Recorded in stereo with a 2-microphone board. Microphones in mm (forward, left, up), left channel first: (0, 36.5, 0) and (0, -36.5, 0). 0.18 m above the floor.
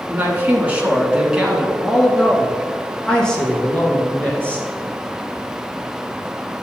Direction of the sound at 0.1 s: 30° right (ahead or behind).